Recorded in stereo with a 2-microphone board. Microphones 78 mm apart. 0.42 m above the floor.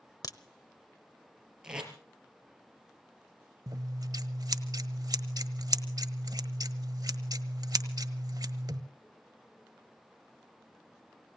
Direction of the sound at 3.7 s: 55° right (ahead or behind).